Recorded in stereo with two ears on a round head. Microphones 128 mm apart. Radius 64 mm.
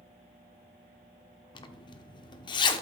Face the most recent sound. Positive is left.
turn(degrees=30)  # may be behind; listen again after turning